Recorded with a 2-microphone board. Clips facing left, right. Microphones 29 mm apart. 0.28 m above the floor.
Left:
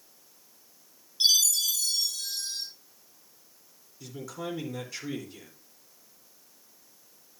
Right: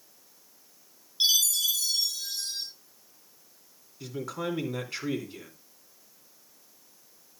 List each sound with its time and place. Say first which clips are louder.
1.2 s a chime: left 1 dB; 20° right (ahead or behind), 6.5 m
4.0 s a man speaking: right 4 dB; 45° right (ahead or behind), 2.5 m